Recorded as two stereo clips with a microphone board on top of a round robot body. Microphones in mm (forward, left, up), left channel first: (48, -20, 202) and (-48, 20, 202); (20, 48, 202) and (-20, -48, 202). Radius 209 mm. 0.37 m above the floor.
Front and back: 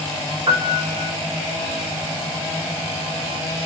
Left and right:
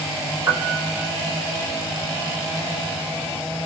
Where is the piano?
170° right, 1.2 m.